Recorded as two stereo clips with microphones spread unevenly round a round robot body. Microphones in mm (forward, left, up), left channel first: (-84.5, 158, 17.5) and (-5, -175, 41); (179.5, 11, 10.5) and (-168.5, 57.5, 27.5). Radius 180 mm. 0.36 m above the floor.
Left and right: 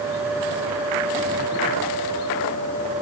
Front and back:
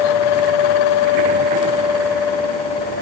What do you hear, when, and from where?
Only background noise.